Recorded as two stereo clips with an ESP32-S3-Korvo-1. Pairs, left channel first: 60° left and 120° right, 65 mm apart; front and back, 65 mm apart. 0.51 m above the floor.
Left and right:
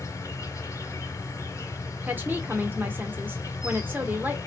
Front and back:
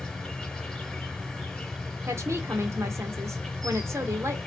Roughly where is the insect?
Left.